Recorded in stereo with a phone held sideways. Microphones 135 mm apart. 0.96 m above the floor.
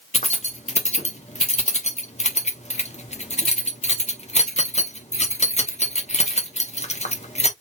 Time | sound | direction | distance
0.1 | keys jangling | 55° left (ahead or behind) | 1.0 m